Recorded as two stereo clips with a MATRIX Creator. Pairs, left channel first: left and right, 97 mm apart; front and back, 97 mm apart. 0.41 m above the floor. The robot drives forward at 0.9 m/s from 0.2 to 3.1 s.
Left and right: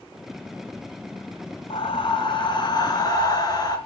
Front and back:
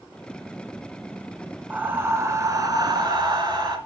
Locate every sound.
1.7 s breathing: 105° left, 1.8 m; by 3.8 s 135° left, 2.5 m